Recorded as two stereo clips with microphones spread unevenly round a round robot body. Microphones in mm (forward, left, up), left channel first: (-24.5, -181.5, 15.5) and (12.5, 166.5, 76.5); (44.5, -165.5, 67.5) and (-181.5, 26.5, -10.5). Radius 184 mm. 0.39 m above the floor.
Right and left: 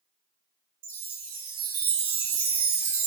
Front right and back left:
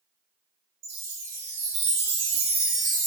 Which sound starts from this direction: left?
A chime, at 0.8 s.